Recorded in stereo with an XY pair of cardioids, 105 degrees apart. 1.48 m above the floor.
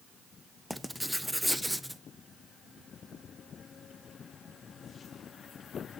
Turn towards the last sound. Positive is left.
turn(degrees=0)